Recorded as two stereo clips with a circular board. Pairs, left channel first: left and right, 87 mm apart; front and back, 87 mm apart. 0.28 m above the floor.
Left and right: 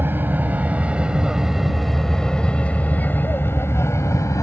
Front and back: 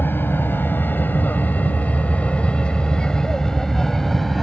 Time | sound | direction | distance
0.0 | an aircraft | 45° right | ?